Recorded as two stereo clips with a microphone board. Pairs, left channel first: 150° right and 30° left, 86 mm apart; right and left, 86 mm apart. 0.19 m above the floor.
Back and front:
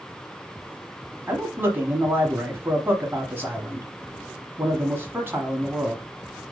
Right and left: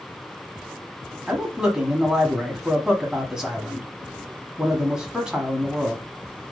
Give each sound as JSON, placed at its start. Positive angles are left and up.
{"t": 1.3, "sound": "a man speaking", "azimuth_deg": 15, "distance_m": 1.3}